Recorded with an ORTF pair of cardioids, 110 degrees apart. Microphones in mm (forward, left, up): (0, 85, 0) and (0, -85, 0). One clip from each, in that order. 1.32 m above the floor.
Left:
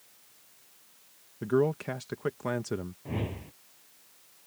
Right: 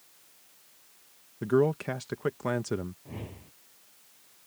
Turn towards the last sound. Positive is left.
turn(degrees=45)